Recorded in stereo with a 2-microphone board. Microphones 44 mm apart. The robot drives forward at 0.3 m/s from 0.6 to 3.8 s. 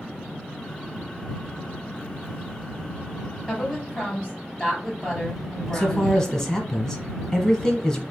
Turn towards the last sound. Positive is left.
turn(degrees=10)  # may be behind; listen again after turning